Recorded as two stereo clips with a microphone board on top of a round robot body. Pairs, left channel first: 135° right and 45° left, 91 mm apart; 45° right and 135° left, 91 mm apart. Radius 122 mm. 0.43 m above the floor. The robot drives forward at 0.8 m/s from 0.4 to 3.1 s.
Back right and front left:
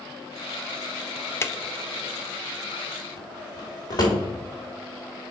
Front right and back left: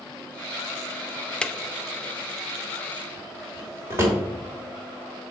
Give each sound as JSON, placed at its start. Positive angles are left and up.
{"t": 1.4, "sound": "a drawer", "azimuth_deg": -115, "distance_m": 0.6}